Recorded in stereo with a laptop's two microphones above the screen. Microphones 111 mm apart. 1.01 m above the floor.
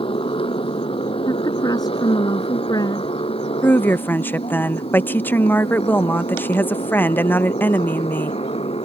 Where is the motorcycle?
55° left (ahead or behind); by 8.9 s 65° left (ahead or behind).